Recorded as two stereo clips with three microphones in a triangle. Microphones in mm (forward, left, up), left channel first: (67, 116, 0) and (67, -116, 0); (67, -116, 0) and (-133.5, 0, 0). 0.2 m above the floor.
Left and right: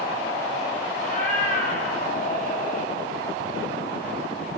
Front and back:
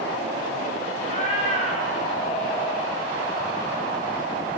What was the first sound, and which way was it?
A cat meowing, 30° left.